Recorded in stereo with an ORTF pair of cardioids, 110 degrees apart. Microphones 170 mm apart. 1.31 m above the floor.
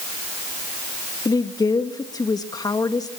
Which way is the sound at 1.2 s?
20° left.